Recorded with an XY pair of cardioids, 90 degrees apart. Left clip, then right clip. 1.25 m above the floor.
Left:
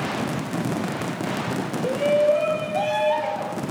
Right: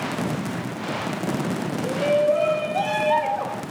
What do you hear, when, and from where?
1.8 s a shout: 40° left, 0.8 m; by 3.6 s 65° right, 1.9 m